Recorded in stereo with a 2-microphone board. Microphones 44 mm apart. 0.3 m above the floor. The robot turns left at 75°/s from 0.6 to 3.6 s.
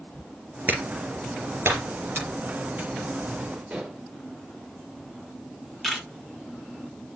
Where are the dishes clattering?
25° right (ahead or behind), 3.5 m.